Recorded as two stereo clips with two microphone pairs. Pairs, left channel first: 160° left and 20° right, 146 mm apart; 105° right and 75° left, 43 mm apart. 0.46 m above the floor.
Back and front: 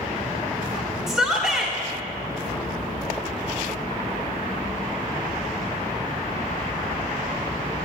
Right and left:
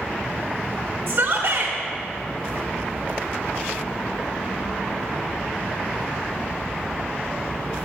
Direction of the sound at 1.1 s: 60° left.